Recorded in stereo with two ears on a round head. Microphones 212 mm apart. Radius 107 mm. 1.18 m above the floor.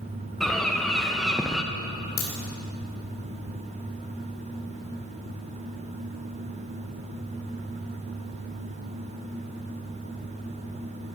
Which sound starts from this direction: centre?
A bird, at 0.4 s.